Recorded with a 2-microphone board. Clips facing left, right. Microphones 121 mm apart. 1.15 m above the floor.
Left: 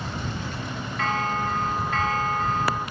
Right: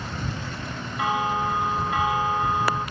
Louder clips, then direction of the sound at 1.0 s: Right 2 dB; 15° right (ahead or behind).